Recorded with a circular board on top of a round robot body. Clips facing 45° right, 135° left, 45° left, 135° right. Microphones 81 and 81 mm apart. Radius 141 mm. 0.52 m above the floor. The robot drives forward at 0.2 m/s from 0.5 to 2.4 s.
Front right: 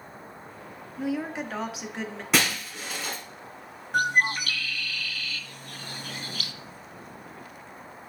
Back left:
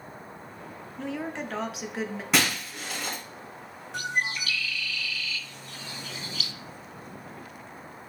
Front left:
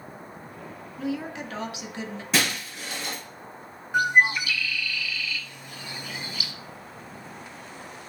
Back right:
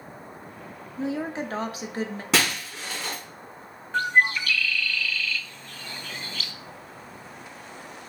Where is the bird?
30° right, 0.6 m.